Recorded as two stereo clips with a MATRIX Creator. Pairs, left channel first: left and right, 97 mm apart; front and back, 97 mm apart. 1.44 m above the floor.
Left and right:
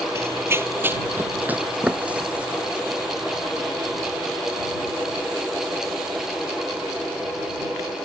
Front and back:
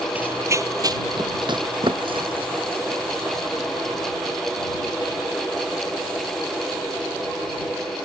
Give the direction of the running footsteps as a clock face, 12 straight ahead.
4 o'clock.